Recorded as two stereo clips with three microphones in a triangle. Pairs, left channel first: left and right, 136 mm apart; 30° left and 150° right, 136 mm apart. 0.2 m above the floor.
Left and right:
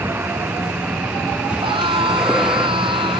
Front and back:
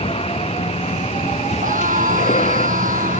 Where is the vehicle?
15° right; by 3.2 s straight ahead.